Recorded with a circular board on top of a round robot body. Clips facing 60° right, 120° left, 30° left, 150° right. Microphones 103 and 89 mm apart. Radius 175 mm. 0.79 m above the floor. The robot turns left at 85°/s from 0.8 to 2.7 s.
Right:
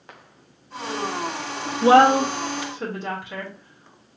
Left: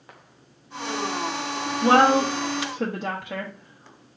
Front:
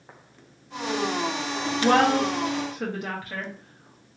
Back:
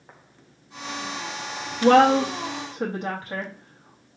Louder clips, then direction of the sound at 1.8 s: Right 3 dB, back 4 dB; 135° right.